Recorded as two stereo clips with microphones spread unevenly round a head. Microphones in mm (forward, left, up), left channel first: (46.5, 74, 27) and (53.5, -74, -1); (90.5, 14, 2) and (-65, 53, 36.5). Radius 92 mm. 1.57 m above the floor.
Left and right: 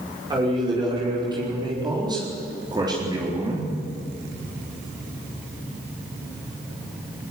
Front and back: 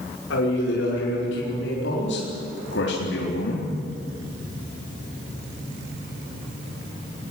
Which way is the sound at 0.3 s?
25° right.